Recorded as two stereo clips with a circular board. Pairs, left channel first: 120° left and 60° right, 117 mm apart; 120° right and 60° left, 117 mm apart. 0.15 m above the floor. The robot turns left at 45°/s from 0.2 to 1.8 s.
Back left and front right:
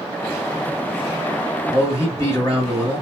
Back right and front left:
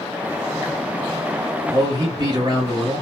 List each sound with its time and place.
1.7 s a man speaking: 80° left, 1.9 m; by 3.0 s 75° left, 1.9 m